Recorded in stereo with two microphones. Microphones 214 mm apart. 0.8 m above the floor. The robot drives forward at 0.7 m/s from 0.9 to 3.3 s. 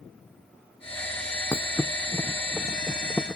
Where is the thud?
15° left (ahead or behind); by 3.4 s 5° left (ahead or behind).